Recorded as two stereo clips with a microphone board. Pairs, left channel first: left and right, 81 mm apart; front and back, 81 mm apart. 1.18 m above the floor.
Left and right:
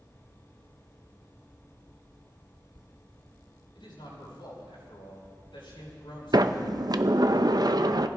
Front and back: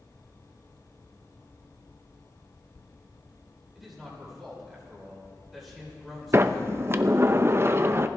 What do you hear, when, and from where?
3.8 s a man speaking: 85° left, 6 m
6.3 s a sliding door: 125° right, 0.6 m